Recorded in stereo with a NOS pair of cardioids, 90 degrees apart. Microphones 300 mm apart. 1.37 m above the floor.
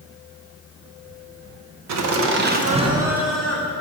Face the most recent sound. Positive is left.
turn(degrees=10)